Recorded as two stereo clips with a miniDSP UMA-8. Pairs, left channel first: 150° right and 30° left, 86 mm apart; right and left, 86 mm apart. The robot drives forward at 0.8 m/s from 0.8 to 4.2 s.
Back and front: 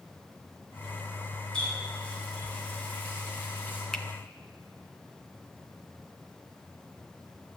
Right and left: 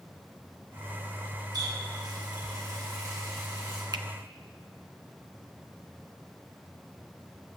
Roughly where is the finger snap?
Behind left.